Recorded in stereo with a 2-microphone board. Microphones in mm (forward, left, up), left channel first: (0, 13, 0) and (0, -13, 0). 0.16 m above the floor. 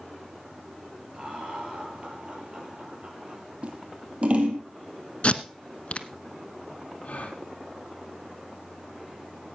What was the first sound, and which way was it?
Laughter, 35° right (ahead or behind).